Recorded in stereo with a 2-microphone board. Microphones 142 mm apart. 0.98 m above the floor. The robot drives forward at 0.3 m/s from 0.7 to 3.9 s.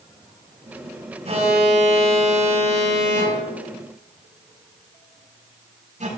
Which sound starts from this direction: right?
An alarm, at 1.2 s.